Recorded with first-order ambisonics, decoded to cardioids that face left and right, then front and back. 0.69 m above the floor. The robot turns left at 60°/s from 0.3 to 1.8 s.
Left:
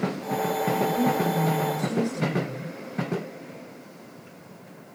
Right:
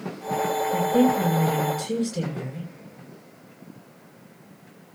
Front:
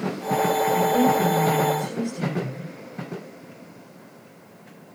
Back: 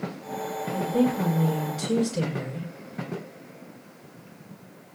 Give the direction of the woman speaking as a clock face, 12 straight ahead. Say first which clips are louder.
Right 5 dB, front 2 dB; 2 o'clock.